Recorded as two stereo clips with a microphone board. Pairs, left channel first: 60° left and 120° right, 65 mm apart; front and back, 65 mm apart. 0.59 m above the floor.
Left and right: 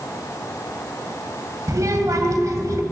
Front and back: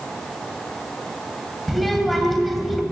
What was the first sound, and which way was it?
A child speaking, 90° right.